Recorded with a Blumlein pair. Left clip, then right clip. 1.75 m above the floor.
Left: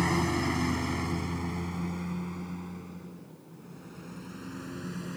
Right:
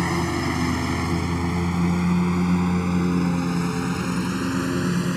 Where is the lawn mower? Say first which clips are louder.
Right 4 dB; 15° right; by 5.2 s 55° right.